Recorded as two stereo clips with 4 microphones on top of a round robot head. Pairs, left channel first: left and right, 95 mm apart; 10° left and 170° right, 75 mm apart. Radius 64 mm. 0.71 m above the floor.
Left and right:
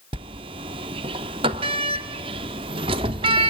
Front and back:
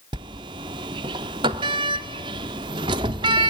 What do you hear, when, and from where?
0.1 s a sliding door: 135° right, 0.6 m